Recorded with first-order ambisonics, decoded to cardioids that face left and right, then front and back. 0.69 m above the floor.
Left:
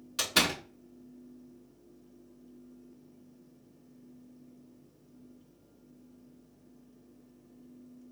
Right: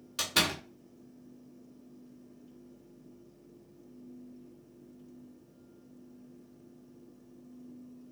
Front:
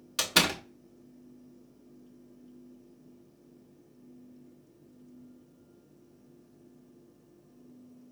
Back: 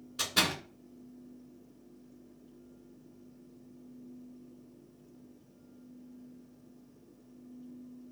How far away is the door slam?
About 1.1 m.